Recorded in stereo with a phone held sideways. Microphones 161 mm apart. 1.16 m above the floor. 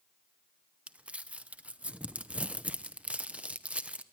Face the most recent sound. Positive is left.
turn(degrees=-10)  # may be behind; listen again after turning